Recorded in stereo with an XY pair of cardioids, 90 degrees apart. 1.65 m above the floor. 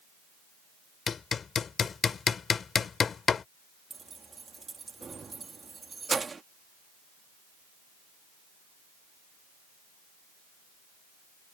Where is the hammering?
50° left.